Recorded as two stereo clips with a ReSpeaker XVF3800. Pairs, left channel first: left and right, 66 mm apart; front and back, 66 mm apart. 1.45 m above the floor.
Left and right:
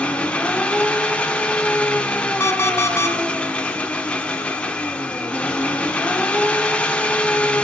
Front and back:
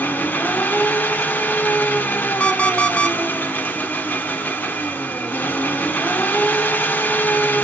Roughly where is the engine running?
Ahead left.